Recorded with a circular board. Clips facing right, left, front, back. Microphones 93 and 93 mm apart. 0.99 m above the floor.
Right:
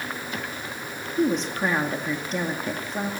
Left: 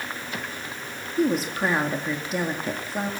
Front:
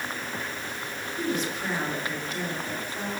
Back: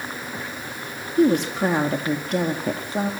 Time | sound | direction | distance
1.2 | a woman speaking | 175° left | 2 m